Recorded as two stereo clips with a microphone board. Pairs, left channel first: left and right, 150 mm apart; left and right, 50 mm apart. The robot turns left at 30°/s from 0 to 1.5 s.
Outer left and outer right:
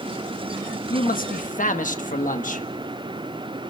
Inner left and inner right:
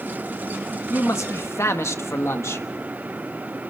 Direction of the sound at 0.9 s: 80° left.